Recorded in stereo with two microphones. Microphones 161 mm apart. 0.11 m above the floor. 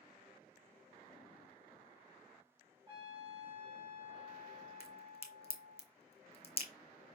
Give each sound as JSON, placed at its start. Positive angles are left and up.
{"t": 2.9, "sound": "a trumpet", "side_deg": -30, "distance_m": 3.0}
{"t": 4.8, "sound": "a crack", "side_deg": 40, "distance_m": 1.1}